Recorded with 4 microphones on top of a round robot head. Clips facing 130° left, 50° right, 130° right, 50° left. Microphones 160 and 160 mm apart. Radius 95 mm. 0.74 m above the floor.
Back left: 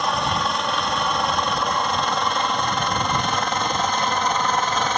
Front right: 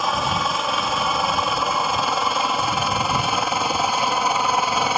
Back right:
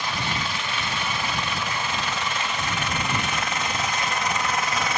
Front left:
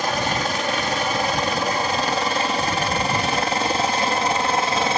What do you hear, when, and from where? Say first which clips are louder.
0.0 s a helicopter: even, front left 6 dB; 35° left; by 5.0 s 25° left